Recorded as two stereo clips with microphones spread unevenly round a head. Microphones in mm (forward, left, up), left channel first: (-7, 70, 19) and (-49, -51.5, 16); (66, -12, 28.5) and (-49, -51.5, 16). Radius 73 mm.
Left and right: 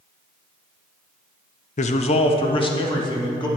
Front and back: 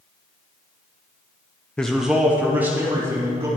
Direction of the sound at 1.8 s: 105° left.